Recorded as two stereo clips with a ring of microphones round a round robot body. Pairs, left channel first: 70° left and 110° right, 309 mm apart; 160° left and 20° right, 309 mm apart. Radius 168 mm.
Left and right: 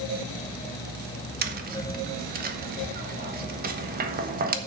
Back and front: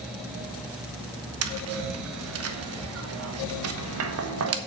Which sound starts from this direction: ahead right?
Tapping, at 1.4 s.